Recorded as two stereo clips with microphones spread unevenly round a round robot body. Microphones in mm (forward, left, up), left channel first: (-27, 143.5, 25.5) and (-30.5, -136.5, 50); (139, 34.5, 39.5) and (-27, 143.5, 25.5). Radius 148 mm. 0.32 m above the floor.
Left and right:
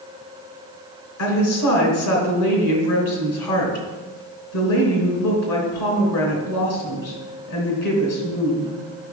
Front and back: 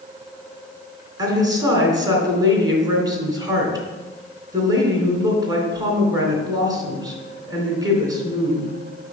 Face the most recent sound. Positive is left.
turn(degrees=75)